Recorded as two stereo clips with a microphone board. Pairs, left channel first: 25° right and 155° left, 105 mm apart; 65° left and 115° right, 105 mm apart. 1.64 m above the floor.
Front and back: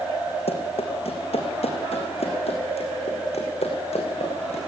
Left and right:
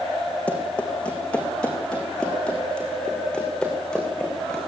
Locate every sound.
0.5 s running footsteps: 10° right, 4.5 m; by 4.6 s 15° right, 6.5 m